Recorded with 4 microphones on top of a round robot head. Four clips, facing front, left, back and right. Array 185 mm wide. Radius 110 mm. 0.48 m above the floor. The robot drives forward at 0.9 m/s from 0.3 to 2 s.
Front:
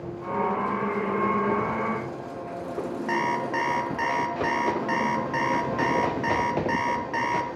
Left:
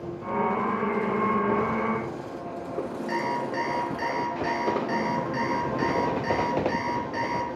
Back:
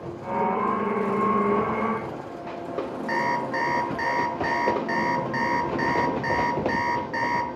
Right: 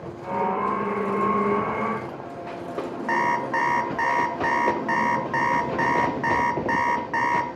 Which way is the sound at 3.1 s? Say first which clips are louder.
Right 7 dB, back 1 dB; 70° right.